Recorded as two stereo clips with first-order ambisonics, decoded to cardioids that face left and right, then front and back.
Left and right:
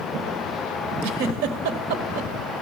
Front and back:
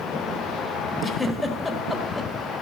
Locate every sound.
1.0 s a giggle: 80° right, 1.1 m